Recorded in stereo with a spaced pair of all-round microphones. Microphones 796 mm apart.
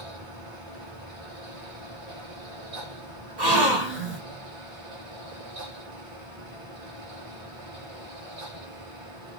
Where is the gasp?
60° right (ahead or behind), 2.5 m.